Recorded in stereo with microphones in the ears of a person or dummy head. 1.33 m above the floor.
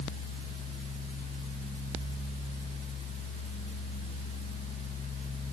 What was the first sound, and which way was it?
Only background noise.